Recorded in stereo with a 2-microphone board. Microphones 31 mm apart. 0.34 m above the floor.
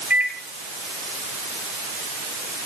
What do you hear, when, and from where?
0.1 s a microwave: 65° right (ahead or behind), 3 m